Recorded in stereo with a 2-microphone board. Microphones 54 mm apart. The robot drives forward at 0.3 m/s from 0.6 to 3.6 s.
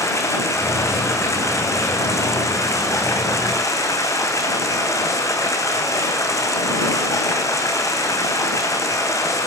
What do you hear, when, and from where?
0.0 s running water: 70° left (ahead or behind), 4 m; by 9.5 s 80° left, 4 m